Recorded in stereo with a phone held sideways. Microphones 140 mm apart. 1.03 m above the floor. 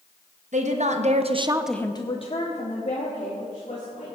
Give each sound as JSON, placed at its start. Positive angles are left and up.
{"t": 0.5, "sound": "a woman speaking", "side_deg": -60, "distance_m": 1.5}